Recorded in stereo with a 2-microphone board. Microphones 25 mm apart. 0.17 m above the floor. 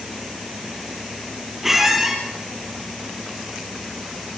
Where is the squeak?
5° right (ahead or behind), 3 m.